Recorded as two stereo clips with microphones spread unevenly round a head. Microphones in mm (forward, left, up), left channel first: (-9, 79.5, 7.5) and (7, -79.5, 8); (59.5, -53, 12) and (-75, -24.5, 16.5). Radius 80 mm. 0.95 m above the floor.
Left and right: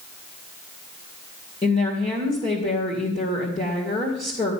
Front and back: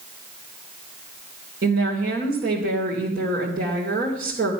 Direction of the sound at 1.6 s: 150° left.